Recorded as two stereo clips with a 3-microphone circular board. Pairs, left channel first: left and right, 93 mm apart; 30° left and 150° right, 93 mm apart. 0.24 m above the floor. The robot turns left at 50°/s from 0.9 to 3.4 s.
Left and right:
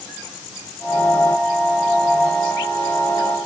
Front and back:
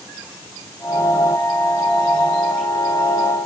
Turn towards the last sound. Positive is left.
No sound to turn to.